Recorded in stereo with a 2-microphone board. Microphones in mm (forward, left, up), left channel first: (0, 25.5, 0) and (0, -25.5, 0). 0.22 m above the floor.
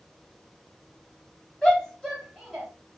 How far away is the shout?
About 1.4 m.